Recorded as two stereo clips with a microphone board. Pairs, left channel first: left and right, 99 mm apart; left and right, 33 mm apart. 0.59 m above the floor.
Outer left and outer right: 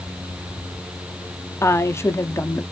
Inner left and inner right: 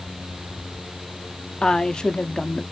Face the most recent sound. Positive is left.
turn(degrees=25)  # may be behind; listen again after turning